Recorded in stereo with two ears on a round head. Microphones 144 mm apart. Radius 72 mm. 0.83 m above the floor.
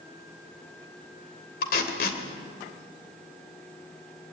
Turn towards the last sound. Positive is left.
turn(degrees=60)  # may be behind; listen again after turning